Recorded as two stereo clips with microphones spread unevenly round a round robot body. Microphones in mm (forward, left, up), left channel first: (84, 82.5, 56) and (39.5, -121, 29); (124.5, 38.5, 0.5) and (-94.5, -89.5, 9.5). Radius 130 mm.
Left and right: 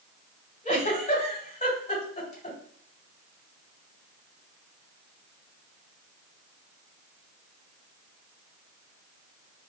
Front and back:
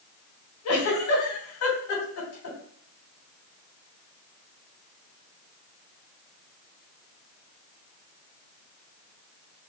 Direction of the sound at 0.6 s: 25° left.